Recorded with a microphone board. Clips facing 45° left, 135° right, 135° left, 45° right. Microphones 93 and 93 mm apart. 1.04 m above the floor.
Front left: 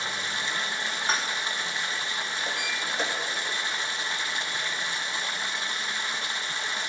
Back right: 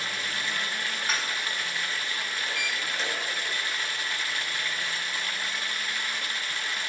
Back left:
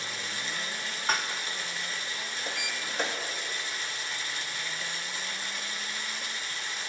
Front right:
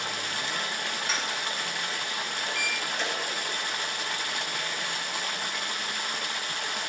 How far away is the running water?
About 0.8 m.